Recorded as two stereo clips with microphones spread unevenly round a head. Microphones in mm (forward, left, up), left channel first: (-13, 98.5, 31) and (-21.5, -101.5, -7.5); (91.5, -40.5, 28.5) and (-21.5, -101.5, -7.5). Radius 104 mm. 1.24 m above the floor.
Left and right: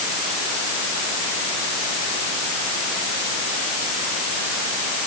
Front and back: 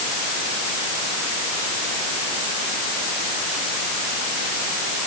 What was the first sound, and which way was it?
Only background noise.